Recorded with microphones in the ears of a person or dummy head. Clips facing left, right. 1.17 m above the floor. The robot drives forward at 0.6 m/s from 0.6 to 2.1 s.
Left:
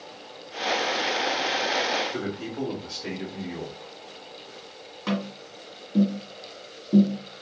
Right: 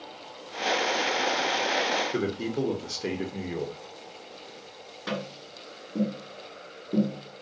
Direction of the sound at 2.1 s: 40° right (ahead or behind).